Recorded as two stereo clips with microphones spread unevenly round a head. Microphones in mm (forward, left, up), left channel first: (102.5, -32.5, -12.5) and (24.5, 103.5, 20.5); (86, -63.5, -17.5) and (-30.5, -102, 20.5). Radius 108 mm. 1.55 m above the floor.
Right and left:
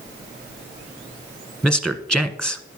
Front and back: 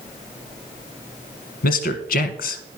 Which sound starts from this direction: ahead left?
A man speaking, at 1.6 s.